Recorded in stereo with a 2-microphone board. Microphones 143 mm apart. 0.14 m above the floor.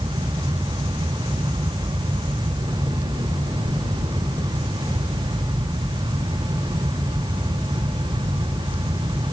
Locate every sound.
Only background noise.